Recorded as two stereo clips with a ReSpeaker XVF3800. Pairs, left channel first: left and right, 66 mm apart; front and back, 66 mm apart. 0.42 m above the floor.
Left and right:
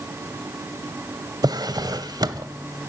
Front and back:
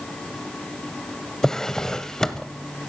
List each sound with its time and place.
1.4 s a drawer: 85° right, 0.6 m